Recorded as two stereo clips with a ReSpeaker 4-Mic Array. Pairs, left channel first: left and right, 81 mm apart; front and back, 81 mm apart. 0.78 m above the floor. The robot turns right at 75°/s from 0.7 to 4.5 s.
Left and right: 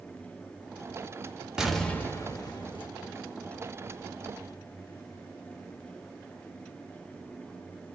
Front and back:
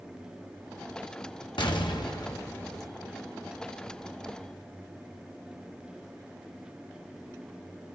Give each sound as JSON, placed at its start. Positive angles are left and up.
{"t": 1.6, "sound": "an explosion", "azimuth_deg": -10, "distance_m": 1.1}